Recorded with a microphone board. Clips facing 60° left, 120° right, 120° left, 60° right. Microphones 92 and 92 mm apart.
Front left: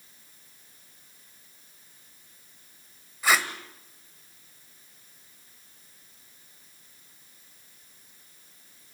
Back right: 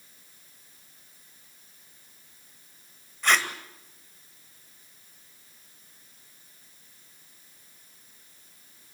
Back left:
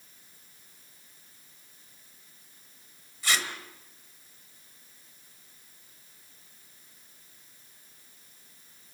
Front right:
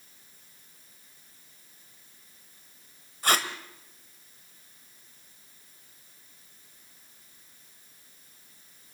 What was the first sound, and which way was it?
Tape being pulled, 25° right.